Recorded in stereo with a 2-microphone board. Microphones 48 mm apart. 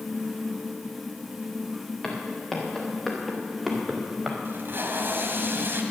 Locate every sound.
2.0 s footsteps: 20° left (ahead or behind), 4.5 m; by 4.3 s 5° right (ahead or behind), 4.5 m
4.5 s tape being pulled: 55° right (ahead or behind), 1.7 m